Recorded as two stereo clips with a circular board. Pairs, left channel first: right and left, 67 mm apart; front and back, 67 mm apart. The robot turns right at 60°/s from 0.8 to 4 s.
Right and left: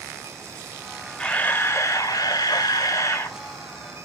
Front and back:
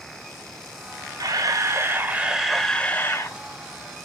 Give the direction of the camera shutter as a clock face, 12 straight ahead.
6 o'clock.